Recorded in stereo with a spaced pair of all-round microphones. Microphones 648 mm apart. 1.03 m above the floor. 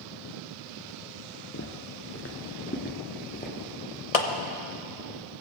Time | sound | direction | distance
1.5 | footsteps | 20° left (ahead or behind) | 1.0 m
4.1 | a clap | 65° left (ahead or behind) | 1.0 m